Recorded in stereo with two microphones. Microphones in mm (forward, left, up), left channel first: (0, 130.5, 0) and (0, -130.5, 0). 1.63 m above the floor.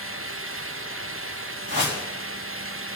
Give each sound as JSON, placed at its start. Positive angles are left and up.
{"t": 1.7, "sound": "a whoosh", "side_deg": -40, "distance_m": 3.5}